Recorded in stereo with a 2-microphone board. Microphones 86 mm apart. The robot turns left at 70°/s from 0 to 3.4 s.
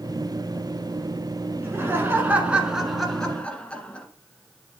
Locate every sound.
1.6 s laughter: 25° right (ahead or behind), 1.5 m; by 4.1 s 15° left (ahead or behind), 1.5 m